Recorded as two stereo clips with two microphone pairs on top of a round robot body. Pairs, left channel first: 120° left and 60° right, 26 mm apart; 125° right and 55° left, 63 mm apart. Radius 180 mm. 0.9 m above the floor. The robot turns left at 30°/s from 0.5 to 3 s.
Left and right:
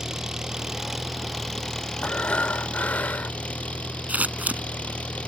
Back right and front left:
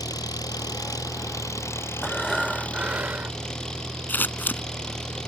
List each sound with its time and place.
0.0 s an engine running: 130° right; by 5.3 s 155° left
2.0 s breathing: 150° left; by 3.4 s 120° left
4.1 s scissors: 65° right